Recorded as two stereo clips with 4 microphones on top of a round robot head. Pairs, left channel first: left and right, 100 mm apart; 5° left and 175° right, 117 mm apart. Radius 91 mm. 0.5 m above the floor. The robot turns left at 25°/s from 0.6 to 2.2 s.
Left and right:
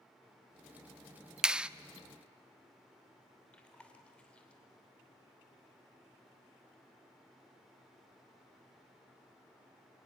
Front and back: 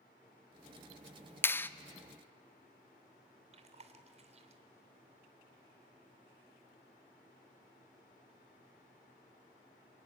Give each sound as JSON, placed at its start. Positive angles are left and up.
{"t": 1.4, "sound": "a clap", "azimuth_deg": -20, "distance_m": 0.7}
{"t": 3.5, "sound": "chewing", "azimuth_deg": 170, "distance_m": 2.0}